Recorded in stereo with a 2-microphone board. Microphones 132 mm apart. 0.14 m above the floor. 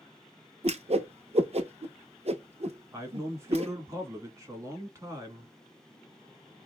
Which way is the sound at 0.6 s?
55° right (ahead or behind).